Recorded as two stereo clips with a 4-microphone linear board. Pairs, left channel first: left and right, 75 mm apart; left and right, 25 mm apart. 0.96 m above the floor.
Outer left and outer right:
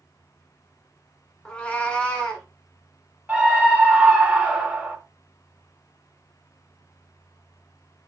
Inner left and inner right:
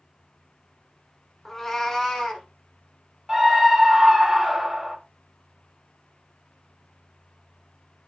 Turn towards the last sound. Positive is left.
turn(degrees=-20)  # may be behind; listen again after turning